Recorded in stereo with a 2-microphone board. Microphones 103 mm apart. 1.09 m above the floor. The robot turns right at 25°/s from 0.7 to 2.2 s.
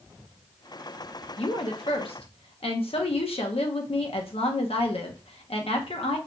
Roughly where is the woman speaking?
Left.